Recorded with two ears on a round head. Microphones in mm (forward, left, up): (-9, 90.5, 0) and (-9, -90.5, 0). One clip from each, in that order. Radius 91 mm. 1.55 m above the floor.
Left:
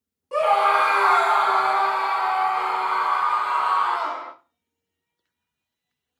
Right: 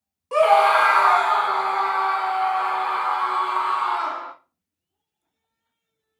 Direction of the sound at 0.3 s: 25° right (ahead or behind).